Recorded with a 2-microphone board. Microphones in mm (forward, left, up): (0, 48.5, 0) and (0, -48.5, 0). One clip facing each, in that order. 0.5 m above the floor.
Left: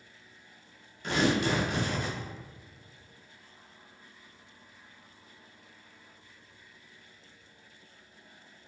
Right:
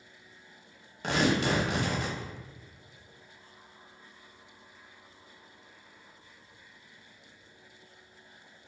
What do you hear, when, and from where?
1.0 s tearing paper: 80° right, 0.8 m